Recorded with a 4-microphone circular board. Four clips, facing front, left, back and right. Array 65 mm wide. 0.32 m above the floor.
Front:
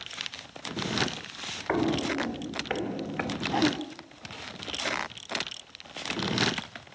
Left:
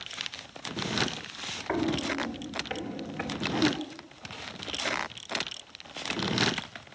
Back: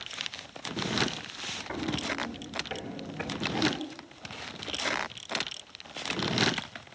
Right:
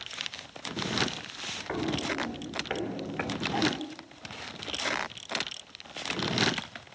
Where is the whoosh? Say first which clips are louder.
Left 3 dB, front 3 dB; 10° right, 2 m.